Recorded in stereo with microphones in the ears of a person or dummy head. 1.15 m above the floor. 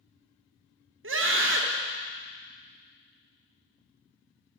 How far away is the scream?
About 1.4 m.